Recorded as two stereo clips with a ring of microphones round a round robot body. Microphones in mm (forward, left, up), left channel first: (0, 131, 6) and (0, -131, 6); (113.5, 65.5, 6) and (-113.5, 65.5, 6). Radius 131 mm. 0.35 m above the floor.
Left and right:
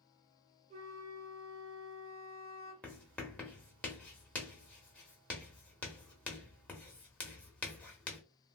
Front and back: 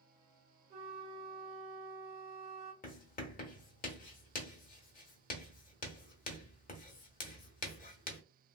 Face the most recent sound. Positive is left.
turn(degrees=10)